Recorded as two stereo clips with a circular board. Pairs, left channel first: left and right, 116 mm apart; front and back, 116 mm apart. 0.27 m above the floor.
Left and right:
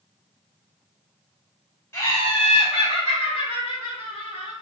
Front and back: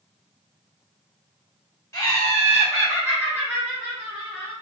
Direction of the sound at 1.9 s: 40° left.